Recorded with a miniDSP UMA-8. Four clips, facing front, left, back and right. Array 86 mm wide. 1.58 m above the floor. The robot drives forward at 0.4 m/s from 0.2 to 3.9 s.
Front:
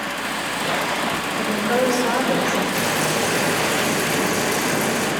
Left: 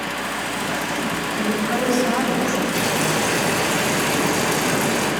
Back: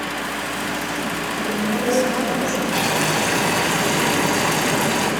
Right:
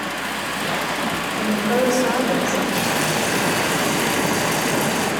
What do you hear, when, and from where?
1.4 s a woman speaking: 40° right, 7.5 m
2.7 s boiling: 160° right, 5 m